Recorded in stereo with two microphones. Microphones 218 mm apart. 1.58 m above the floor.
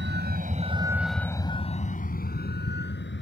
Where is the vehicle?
55° right (ahead or behind); by 3.2 s 55° left (ahead or behind).